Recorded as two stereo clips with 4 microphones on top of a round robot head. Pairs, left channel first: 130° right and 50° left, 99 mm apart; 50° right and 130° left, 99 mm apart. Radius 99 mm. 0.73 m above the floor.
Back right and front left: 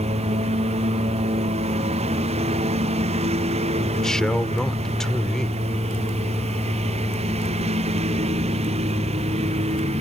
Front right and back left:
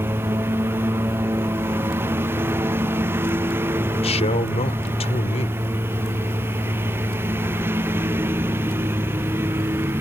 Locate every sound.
0.0 s a lawn mower: 60° left
3.9 s a man speaking: 45° right